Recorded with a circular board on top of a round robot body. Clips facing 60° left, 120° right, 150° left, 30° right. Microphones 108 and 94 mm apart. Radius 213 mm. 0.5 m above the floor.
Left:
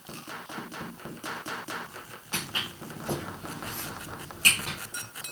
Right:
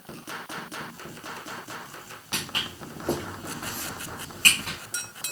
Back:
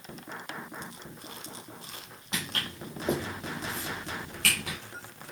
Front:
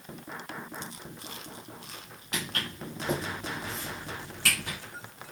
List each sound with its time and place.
2.3 s footsteps: 150° right, 1.2 m; by 4.8 s 130° left, 1.1 m